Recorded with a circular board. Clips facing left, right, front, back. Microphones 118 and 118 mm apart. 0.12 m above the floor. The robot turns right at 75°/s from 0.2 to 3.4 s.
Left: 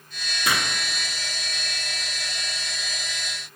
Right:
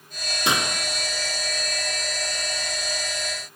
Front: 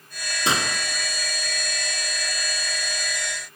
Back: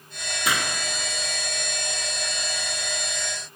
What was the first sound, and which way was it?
A gunshot, 45° right.